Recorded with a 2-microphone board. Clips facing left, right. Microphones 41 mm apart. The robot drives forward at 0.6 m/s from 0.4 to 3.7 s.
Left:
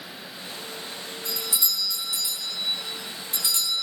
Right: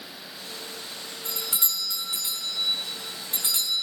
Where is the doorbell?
45° right (ahead or behind), 3 m; by 3.8 s 35° right (ahead or behind), 3.5 m.